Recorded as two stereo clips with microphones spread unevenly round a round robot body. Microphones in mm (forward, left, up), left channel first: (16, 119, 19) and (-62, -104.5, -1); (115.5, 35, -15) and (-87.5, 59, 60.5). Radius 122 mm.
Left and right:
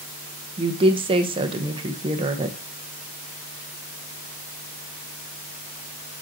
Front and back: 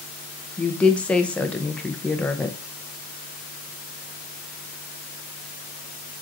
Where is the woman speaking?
60° right, 0.7 m.